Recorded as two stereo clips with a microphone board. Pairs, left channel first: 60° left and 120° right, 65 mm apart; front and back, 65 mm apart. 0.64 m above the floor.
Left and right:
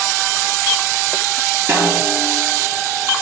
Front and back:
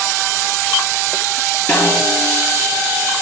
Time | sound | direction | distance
1.7 | a snare drum | 60° right | 3.5 m